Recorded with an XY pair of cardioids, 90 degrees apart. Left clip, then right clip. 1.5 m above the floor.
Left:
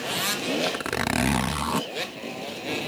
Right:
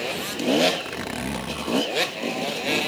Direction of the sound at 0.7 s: 60° left.